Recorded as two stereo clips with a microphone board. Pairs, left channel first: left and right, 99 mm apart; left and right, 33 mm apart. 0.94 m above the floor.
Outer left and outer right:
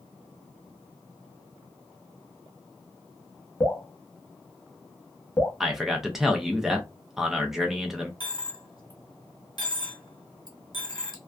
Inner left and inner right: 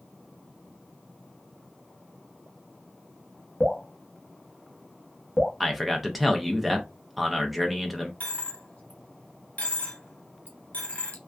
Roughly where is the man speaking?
Centre.